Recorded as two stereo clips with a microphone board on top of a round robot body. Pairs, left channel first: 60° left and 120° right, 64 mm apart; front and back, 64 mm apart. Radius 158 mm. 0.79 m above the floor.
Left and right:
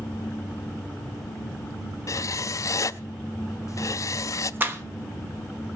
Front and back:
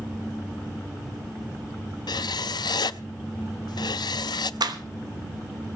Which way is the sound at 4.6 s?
Straight behind.